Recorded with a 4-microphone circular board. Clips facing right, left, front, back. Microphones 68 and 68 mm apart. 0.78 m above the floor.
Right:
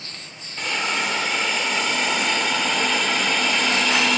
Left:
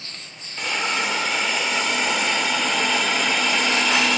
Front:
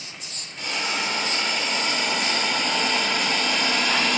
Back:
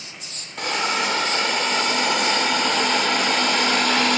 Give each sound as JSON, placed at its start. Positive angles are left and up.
{"t": 0.6, "sound": "a hiss", "azimuth_deg": 180, "distance_m": 0.8}